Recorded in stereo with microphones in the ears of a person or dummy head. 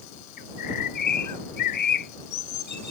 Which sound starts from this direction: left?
A bird, at 0.4 s.